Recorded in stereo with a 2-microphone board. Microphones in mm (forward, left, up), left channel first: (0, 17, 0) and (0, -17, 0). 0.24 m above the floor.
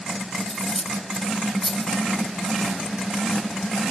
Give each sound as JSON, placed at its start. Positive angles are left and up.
{"t": 0.4, "sound": "cutlery clinking", "side_deg": 15, "distance_m": 0.6}